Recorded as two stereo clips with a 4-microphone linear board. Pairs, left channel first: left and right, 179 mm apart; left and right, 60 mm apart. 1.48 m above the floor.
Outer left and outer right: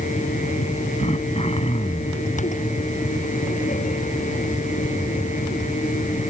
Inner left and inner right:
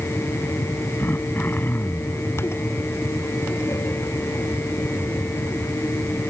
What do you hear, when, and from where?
1.0 s throat clearing: 35° left (ahead or behind)